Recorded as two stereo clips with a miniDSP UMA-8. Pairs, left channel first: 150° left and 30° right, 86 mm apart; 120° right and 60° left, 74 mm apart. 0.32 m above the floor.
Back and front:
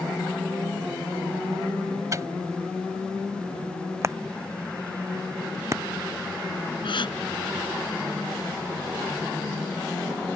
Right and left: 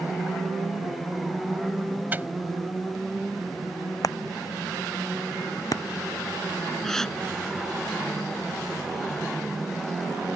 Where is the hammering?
85° right.